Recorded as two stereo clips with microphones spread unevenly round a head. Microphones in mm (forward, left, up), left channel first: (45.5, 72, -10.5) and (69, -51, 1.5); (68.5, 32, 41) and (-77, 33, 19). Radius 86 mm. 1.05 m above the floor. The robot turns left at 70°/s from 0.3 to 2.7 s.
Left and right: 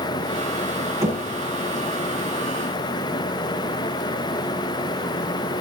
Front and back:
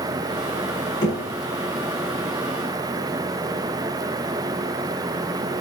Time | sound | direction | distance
1.0 | knocking | 15° right | 6.5 m